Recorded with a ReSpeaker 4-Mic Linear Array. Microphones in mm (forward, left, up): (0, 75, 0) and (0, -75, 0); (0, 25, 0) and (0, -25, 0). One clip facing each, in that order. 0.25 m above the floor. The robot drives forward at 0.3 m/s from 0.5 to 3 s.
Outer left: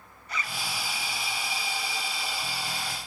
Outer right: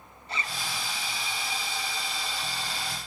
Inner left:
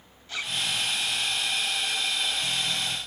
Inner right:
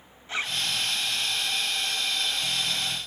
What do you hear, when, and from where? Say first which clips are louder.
0.3 s a zipper: even, inner right 2 dB; 25° right (ahead or behind), 0.6 m